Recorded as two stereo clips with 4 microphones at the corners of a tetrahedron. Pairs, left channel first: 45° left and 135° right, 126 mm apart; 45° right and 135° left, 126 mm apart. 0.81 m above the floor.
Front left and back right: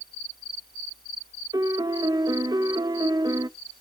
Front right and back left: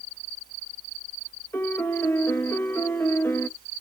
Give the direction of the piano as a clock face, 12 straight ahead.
3 o'clock.